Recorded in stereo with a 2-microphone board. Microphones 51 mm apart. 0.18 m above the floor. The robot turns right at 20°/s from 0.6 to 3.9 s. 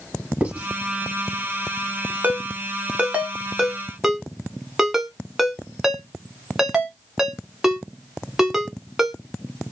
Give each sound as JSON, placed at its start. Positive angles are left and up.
{"t": 0.4, "sound": "writing", "side_deg": -30, "distance_m": 1.4}
{"t": 2.2, "sound": "a ringtone", "side_deg": -35, "distance_m": 0.6}